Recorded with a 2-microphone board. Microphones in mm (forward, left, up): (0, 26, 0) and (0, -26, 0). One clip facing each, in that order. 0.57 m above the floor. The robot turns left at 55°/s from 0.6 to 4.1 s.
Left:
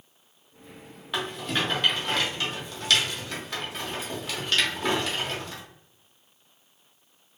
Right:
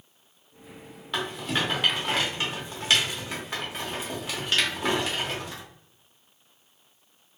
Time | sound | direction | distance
1.1 | a rattle | 5° left (ahead or behind) | 1.1 m